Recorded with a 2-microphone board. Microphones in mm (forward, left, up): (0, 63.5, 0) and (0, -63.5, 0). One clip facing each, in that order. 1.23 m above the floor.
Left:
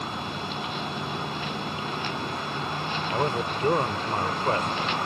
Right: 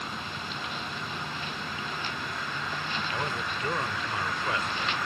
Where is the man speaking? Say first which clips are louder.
Left 10 dB; 40° left (ahead or behind).